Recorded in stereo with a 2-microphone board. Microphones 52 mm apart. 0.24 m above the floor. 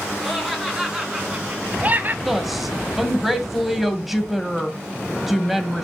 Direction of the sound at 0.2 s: Centre (ahead or behind).